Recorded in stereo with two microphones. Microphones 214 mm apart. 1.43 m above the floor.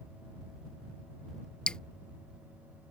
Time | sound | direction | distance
1.7 | dripping | 5° left (ahead or behind) | ?